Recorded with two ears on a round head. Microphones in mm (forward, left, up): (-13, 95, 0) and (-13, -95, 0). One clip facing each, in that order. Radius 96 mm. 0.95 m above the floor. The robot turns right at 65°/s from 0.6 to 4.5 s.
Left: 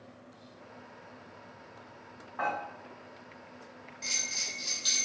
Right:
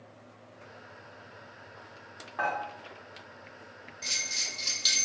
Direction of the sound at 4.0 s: 175° right.